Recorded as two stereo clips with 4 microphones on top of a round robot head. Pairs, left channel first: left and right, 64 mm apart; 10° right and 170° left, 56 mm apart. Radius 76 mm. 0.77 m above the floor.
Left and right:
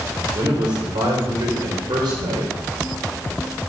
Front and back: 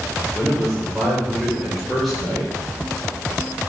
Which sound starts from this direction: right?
A man speaking, at 0.3 s.